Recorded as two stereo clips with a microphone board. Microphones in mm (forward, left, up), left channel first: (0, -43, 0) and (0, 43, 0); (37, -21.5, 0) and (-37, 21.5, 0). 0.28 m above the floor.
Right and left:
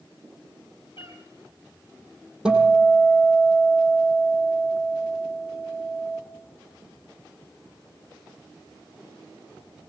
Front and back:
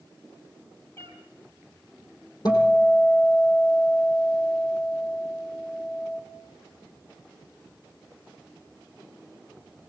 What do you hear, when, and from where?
1.0 s a cat meowing: 90° right, 4.5 m
2.5 s a guitar: 10° left, 5 m